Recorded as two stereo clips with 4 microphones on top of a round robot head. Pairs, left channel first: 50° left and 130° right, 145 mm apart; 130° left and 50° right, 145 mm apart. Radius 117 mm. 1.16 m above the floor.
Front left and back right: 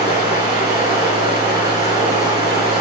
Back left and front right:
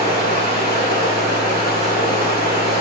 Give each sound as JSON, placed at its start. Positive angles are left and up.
{"t": 0.0, "sound": "running water", "azimuth_deg": -75, "distance_m": 5.0}